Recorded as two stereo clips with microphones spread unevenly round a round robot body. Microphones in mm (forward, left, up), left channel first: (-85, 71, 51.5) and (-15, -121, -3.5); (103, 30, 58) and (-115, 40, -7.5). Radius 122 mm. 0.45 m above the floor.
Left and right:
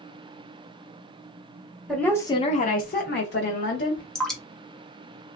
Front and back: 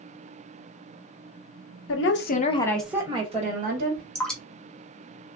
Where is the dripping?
125° right, 1.0 m.